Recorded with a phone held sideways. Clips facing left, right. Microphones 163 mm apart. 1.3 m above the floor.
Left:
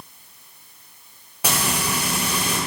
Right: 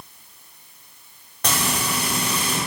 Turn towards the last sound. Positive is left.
turn(degrees=10)  # may be behind; listen again after turning